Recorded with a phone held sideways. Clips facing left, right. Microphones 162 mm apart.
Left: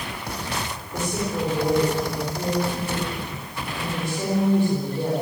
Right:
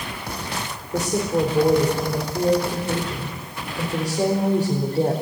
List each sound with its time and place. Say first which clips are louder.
0.9 s a woman speaking: right 5 dB; 40° right (ahead or behind), 4.5 m